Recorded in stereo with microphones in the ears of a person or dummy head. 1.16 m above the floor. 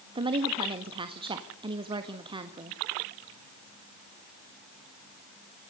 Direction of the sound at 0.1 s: 30° right (ahead or behind).